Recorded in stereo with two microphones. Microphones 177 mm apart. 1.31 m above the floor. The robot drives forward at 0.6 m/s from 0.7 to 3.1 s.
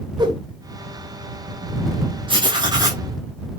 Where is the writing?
30° right (ahead or behind), 1.5 m; by 3.0 s 25° right (ahead or behind), 1.9 m.